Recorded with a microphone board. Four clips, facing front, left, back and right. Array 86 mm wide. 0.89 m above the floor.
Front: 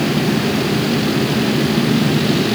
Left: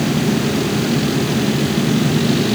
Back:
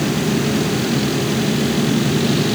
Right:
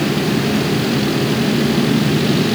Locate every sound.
Only background noise.